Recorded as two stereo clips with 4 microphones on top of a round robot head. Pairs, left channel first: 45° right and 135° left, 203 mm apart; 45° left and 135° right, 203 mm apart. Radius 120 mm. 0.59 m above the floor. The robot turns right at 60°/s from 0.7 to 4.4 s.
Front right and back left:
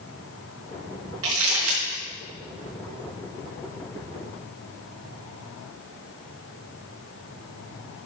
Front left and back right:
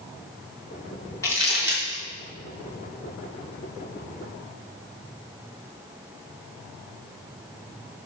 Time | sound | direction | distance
1.2 | crumpling | 120° left | 5 m